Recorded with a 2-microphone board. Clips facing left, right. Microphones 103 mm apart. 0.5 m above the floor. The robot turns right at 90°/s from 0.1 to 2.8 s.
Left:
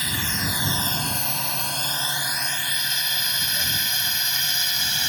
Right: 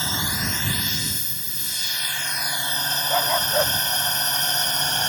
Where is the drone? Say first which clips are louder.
Right 1 dB; 25° right (ahead or behind); by 5.1 s 40° right (ahead or behind).